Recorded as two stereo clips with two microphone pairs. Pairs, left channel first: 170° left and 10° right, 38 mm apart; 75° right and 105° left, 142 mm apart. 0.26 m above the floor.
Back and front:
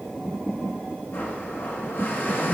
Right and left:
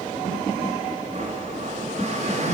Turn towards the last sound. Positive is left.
turn(degrees=140)